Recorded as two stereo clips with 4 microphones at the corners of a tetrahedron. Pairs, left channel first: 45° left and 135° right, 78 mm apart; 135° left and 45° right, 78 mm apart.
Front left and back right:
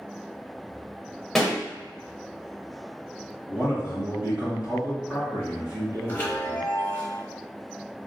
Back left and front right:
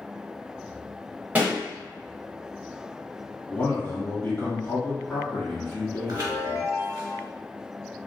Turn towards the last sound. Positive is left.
turn(degrees=-15)